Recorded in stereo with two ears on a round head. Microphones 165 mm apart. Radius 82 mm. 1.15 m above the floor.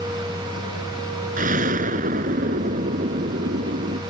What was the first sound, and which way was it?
An explosion, 45° right (ahead or behind).